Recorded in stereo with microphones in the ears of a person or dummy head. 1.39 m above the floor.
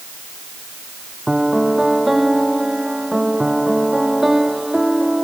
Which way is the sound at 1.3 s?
Centre (ahead or behind).